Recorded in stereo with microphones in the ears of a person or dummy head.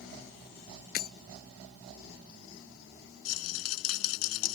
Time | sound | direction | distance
0.9 | breaking glass | 55° left (ahead or behind) | ?
3.2 | a rattle | 85° left | ?